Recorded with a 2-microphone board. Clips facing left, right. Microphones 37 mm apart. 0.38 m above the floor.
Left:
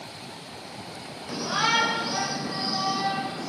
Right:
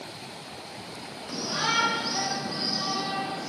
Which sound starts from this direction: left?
A shout, at 1.3 s.